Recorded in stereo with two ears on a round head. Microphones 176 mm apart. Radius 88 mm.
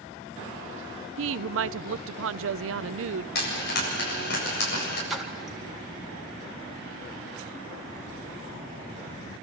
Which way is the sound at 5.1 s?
Centre (ahead or behind).